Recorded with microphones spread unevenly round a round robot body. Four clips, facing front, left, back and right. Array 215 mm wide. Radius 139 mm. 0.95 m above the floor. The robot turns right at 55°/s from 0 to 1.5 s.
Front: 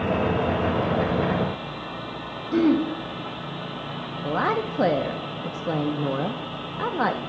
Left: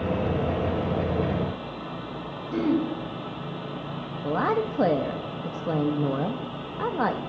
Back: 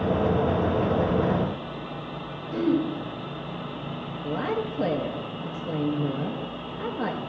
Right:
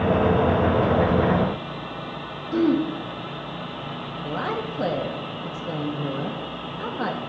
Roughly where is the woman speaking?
Ahead.